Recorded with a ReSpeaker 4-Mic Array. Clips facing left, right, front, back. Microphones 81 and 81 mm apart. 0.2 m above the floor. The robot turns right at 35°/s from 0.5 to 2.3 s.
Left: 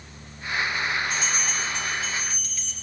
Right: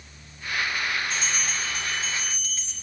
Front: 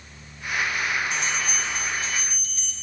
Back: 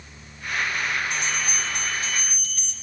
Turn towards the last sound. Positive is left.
turn(degrees=-145)